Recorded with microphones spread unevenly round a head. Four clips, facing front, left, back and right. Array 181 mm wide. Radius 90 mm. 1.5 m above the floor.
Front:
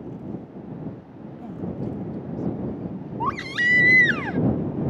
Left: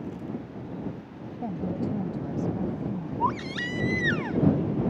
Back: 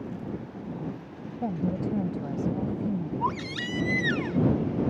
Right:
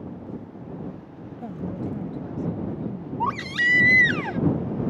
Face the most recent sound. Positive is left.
turn(degrees=-60)